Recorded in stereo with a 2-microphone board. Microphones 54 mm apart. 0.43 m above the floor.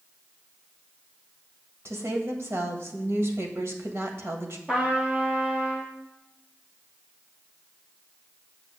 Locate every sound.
1.9 s a woman speaking: 50° right (ahead or behind), 1.7 m
4.7 s a trumpet: 20° right (ahead or behind), 3.5 m